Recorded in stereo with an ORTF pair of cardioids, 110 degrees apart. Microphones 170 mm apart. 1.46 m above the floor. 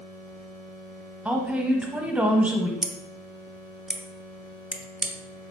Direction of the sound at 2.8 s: 5° right.